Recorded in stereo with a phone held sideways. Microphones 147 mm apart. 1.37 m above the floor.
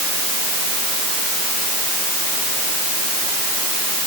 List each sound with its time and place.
Only background noise.